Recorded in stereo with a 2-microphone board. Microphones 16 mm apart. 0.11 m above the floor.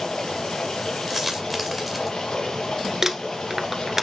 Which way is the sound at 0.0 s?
75° left (ahead or behind).